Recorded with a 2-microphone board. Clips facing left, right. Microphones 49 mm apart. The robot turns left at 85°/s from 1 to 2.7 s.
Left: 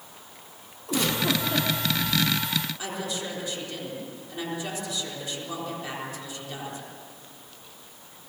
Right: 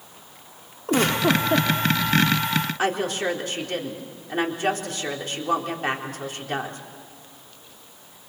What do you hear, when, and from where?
0.9 s a giggle: 70° right, 1.7 m; by 1.7 s 125° right, 1.7 m
2.8 s a woman speaking: 60° right (ahead or behind), 3.5 m